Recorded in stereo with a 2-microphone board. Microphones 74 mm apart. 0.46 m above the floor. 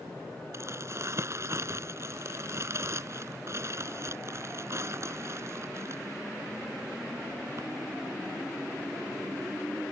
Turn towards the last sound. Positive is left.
turn(degrees=-45)  # may be behind; listen again after turning